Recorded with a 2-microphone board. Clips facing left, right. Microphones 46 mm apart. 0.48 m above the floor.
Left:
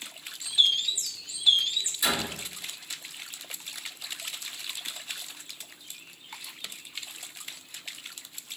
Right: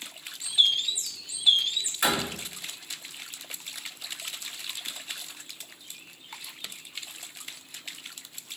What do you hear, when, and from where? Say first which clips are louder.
0.4 s a bird: even; 15° right (ahead or behind), 0.6 m
2.0 s a door slam: right 3 dB; 60° right (ahead or behind), 2 m